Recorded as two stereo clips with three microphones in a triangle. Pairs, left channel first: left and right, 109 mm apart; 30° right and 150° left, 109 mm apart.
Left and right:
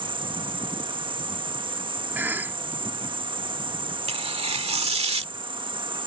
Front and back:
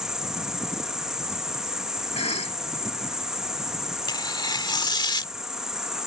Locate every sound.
0.0 s an insect: 125° right
2.1 s a cough: 20° right
4.1 s tearing paper: 75° right